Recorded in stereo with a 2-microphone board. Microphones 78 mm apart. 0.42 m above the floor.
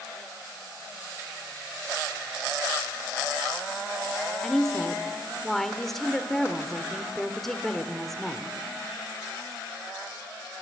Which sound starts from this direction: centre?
A woman speaking, at 4.4 s.